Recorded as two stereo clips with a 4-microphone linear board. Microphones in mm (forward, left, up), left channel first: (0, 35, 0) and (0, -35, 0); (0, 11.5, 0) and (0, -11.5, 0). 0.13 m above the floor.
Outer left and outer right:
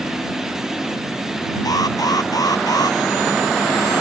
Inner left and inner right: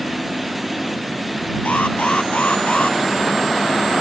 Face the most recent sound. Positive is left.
turn(degrees=65)  # may be behind; listen again after turning